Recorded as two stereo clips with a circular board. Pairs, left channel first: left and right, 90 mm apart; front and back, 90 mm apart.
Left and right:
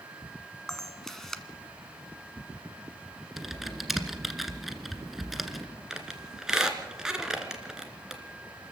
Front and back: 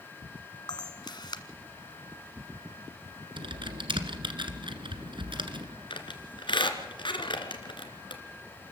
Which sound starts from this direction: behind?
Typing on a keyboard, at 3.4 s.